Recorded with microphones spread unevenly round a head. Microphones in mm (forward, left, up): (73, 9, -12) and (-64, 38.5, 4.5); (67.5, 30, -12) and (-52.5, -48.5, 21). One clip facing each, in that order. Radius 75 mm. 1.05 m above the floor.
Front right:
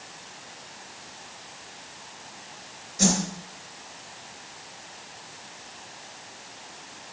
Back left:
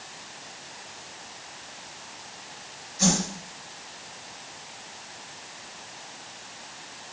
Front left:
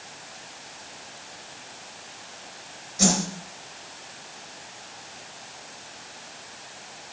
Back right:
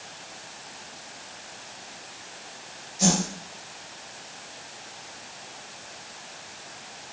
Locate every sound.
3.0 s a whoosh: 15° left, 3.5 m